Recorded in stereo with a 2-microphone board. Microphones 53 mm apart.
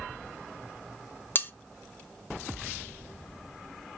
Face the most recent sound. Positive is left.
turn(degrees=35)  # may be behind; listen again after turning